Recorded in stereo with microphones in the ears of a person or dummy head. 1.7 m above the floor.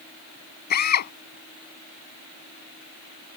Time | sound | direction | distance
0.7 | a drill | 55° left (ahead or behind) | ?